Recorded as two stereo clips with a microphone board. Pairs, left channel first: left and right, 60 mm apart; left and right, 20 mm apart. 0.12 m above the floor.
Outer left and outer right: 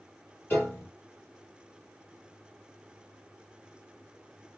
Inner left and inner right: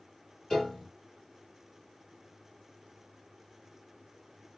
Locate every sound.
0.5 s a piano: 35° left (ahead or behind), 3 m